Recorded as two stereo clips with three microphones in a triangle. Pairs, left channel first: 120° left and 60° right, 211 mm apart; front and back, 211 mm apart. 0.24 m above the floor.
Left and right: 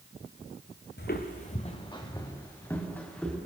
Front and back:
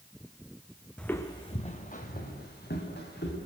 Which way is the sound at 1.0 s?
85° left.